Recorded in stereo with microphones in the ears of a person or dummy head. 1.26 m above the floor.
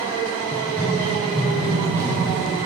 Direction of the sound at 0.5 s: 20° left (ahead or behind).